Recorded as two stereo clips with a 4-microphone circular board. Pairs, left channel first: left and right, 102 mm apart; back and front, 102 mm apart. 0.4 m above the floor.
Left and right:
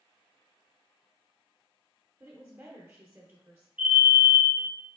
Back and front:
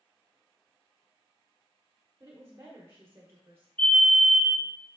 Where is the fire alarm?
135° right, 2 m.